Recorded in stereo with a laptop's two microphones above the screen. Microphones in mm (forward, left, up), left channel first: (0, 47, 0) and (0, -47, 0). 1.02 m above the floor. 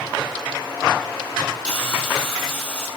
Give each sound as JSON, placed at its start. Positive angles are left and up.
{"t": 1.6, "sound": "a hiss", "side_deg": 5, "distance_m": 6.5}